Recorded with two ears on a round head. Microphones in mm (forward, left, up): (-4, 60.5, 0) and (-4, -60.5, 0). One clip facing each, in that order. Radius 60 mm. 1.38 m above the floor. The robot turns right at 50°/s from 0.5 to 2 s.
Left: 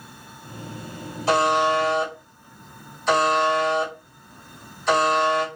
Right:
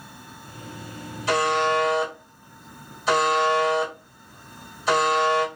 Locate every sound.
1.3 s a buzzer: 145° left, 2 m; by 5.5 s 175° right, 2 m